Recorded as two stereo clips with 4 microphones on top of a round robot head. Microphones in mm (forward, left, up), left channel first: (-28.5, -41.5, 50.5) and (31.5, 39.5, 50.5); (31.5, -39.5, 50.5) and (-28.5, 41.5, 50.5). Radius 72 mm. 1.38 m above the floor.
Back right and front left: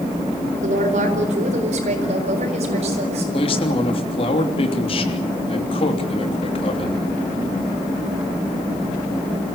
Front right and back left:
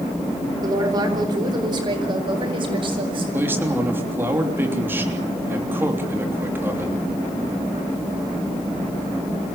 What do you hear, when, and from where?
0.6 s a woman speaking: 70° left, 4.5 m; by 3.2 s 85° left, 6.5 m
3.3 s a man speaking: 160° right, 3 m